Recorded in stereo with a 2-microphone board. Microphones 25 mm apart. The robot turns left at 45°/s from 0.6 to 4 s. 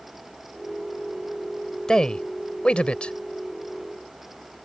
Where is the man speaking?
30° left (ahead or behind); by 3.1 s 50° left (ahead or behind).